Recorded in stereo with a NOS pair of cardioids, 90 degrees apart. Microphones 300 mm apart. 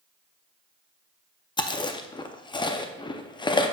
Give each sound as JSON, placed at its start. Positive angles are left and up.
{"t": 1.6, "sound": "chewing", "azimuth_deg": 15, "distance_m": 0.6}